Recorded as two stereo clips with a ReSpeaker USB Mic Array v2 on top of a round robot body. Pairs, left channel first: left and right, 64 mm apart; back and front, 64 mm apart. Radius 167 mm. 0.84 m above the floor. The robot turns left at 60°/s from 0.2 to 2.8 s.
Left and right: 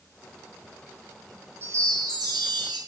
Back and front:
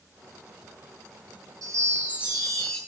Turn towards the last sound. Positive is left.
turn(degrees=-105)